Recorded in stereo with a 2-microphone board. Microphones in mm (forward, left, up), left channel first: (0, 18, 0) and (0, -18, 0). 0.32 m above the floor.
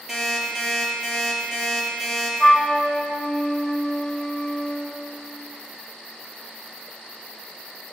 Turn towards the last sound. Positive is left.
turn(degrees=20)  # may be behind; listen again after turning